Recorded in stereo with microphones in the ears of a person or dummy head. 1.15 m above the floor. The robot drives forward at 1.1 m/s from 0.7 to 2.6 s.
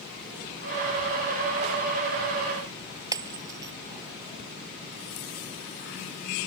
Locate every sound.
3.1 s breaking glass: 10° right (ahead or behind)